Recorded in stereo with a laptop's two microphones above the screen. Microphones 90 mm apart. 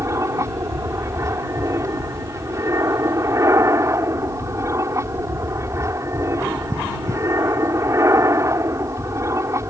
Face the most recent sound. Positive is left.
turn(degrees=-30)  # may be behind; listen again after turning